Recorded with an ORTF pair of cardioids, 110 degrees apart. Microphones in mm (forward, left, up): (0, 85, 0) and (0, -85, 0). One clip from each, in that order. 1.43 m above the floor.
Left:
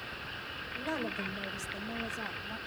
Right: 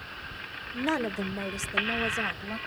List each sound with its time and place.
0.7 s a woman speaking: 45° right, 1.4 m; by 2.6 s 50° right, 2.5 m